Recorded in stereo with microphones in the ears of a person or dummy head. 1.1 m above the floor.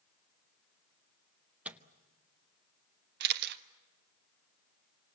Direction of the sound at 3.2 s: 60° right (ahead or behind).